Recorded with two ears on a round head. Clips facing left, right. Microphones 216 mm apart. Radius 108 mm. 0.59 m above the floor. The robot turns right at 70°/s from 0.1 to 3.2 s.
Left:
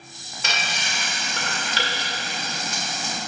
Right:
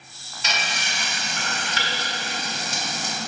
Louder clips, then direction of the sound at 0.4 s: Even; 45° left (ahead or behind).